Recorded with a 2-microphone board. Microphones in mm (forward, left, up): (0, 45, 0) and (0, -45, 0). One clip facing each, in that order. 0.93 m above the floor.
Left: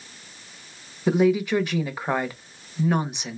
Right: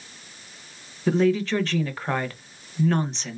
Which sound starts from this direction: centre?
A woman speaking, at 1.1 s.